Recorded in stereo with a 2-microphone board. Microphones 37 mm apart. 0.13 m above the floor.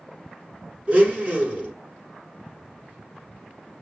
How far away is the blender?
About 1.6 m.